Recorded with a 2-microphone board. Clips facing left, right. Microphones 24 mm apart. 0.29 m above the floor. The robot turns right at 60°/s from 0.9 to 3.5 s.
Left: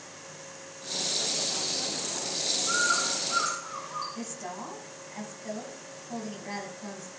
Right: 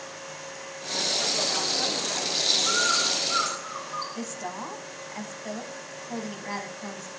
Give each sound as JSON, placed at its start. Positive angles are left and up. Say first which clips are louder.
{"t": 2.7, "sound": "a bird", "louder": "right 3 dB", "azimuth_deg": -80, "distance_m": 5.0}
{"t": 4.2, "sound": "a woman speaking", "louder": "right 4 dB", "side_deg": -30, "distance_m": 1.9}